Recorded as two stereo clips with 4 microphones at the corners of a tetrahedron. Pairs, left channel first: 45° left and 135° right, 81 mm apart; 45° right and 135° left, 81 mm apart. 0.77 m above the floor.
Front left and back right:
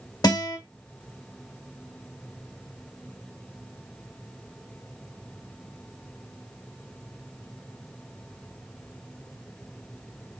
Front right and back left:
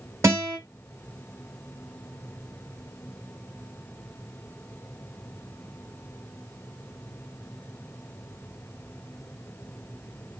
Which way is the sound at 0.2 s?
85° left.